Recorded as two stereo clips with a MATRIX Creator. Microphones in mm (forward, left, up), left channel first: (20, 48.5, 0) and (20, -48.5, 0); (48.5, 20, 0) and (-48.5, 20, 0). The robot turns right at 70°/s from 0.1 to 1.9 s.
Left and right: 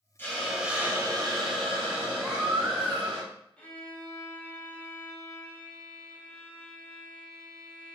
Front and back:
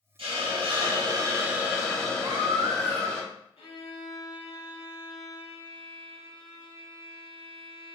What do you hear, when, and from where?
0.2 s a hiss: 155° left, 0.8 m; by 3.2 s 85° right, 0.8 m
2.2 s a baby crying: 160° right, 1.6 m
3.6 s a violin: 10° left, 0.8 m